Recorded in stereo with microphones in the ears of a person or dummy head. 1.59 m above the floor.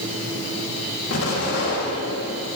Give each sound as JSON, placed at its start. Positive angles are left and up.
{"t": 1.1, "sound": "an explosion", "side_deg": 85, "distance_m": 3.5}